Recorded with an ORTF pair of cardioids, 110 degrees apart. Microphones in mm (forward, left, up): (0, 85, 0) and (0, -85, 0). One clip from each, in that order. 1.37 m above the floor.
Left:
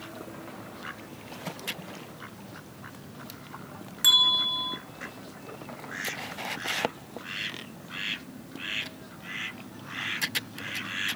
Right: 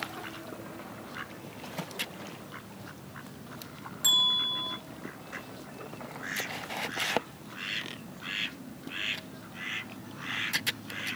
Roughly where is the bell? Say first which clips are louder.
Left 4 dB; ahead left.